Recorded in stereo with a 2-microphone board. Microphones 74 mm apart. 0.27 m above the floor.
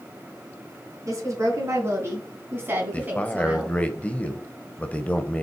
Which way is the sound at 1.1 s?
45° right (ahead or behind).